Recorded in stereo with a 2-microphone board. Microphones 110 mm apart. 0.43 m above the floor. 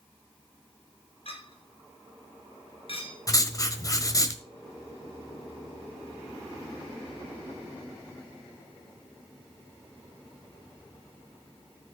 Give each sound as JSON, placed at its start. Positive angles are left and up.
{"t": 1.2, "sound": "a clink", "side_deg": 55, "distance_m": 4.0}
{"t": 3.3, "sound": "writing", "side_deg": 30, "distance_m": 1.2}